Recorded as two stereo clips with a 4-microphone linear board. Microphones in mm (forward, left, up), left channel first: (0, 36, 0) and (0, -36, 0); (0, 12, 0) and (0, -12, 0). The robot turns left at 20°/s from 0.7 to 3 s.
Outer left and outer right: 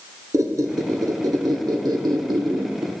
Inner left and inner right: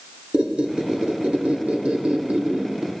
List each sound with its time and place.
0.3 s a squeak: 50° right, 0.8 m; by 2.9 s 95° right, 0.8 m